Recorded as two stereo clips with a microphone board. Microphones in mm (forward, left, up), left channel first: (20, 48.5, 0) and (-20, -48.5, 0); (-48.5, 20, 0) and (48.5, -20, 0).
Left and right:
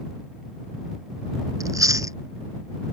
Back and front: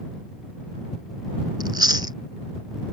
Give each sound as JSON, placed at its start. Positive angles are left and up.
{"t": 1.6, "sound": "chewing", "azimuth_deg": -60}